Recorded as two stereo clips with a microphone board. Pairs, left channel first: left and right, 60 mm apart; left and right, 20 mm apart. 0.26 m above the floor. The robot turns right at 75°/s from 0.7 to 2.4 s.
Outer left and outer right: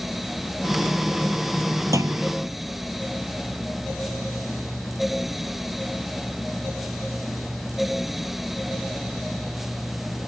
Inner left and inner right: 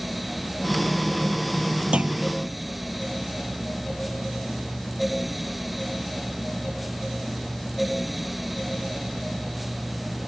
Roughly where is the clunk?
Right.